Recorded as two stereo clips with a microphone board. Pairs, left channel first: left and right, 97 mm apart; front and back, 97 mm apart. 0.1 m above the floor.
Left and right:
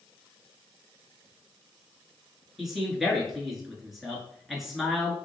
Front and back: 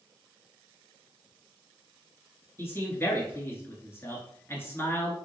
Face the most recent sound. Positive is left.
turn(degrees=-5)